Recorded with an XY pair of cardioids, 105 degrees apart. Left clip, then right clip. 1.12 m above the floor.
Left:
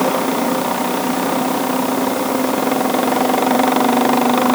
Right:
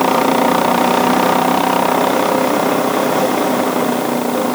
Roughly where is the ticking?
I don't hear ticking.